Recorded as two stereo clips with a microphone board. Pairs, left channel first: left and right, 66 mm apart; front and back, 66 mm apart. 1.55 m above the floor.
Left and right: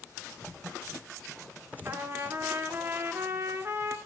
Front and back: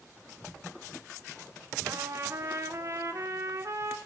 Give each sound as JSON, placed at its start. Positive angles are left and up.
{"t": 1.9, "sound": "a trumpet", "azimuth_deg": -140, "distance_m": 2.0}